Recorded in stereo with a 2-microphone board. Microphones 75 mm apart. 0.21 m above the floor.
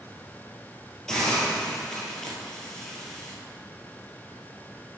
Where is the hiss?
10° left (ahead or behind), 1.7 m.